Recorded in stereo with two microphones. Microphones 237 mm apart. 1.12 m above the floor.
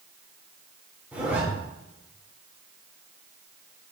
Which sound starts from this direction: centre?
A zipper, at 1.1 s.